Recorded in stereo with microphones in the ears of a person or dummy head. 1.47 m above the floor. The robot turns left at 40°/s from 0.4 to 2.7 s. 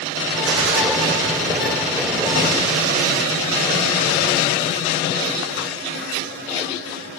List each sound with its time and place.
0.5 s a gunshot: 70° right (ahead or behind), 1.2 m; by 0.8 s 55° right (ahead or behind), 1.2 m